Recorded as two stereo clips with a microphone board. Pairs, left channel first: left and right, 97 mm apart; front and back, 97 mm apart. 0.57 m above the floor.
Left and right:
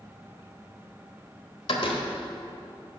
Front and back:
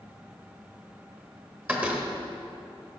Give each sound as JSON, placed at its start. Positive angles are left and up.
{"t": 1.7, "sound": "a door slam", "azimuth_deg": 105, "distance_m": 1.8}